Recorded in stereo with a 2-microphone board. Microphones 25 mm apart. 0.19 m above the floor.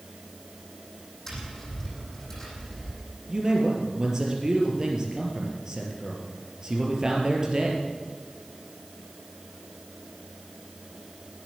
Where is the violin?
No violin in this recording.